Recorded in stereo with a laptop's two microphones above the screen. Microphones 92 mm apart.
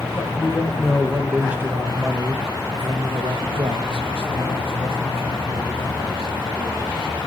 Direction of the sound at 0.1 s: 15° left (ahead or behind).